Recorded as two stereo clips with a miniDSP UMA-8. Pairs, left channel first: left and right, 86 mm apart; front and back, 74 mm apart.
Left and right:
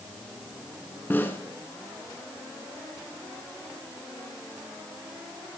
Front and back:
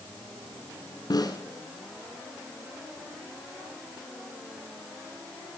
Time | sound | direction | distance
1.1 | a snare drum | 25° left | 1.9 m